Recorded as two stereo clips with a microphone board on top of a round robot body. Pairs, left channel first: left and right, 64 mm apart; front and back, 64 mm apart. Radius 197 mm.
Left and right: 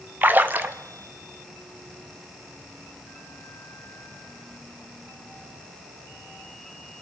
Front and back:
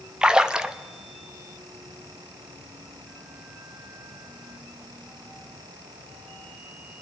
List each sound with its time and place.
0.2 s a splash: 115° right, 1.2 m